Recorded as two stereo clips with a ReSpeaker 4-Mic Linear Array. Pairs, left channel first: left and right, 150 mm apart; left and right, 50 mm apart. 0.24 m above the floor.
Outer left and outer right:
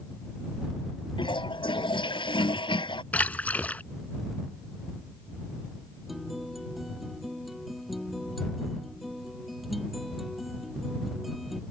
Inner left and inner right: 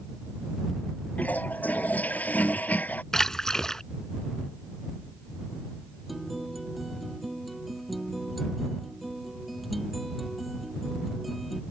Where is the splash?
10° left (ahead or behind).